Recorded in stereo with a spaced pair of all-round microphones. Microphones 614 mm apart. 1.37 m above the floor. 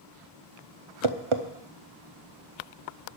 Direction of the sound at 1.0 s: 55° right (ahead or behind).